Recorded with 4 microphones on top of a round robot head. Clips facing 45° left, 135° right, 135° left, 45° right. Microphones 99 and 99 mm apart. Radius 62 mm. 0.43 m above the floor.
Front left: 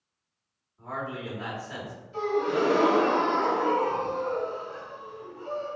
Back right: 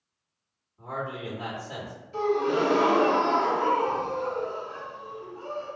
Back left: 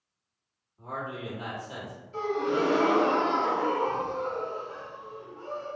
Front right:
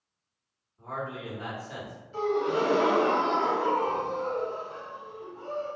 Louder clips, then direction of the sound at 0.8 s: Back right 1 dB, even; 170° left.